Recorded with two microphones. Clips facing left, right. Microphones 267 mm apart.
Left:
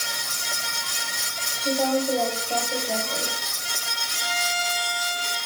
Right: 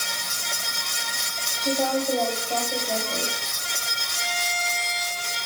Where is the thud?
No thud in this recording.